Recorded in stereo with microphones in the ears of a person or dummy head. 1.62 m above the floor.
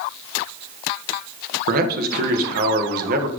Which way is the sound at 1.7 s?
50° right (ahead or behind).